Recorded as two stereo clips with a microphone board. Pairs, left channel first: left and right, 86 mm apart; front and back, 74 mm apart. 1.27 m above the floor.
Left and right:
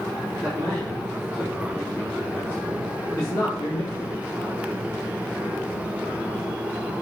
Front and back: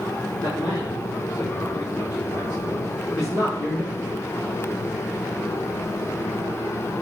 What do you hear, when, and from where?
0.4 s a man speaking: straight ahead, 3 m; by 4.1 s 40° left, 2.5 m